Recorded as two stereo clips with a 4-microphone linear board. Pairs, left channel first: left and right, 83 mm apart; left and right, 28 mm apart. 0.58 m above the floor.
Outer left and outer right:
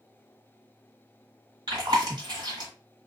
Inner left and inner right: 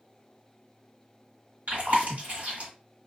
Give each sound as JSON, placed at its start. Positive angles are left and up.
{"t": 1.7, "sound": "chewing", "side_deg": -65, "distance_m": 1.3}